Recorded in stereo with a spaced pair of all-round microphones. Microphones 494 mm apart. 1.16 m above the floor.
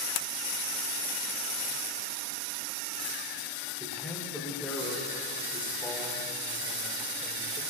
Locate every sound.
3.8 s a man speaking: 5° left (ahead or behind), 3.5 m